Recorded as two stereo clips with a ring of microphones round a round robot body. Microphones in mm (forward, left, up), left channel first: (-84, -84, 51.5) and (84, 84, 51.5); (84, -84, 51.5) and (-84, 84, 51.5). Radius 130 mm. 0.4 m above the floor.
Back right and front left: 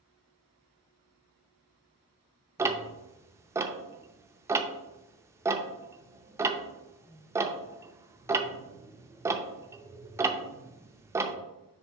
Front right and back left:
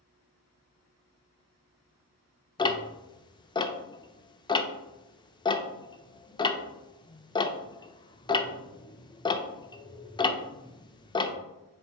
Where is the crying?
No crying in this recording.